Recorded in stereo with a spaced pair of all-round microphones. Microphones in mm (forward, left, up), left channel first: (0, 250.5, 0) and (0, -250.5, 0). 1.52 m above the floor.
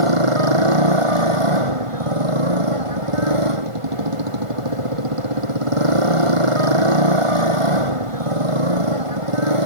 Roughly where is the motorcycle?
Right.